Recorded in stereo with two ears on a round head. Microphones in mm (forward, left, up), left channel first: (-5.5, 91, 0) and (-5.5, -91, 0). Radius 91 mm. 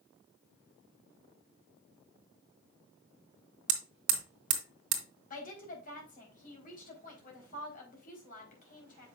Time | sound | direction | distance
3.7 | hammering | 65° right (ahead or behind) | 1.6 m
5.3 | a woman speaking | 45° left (ahead or behind) | 4 m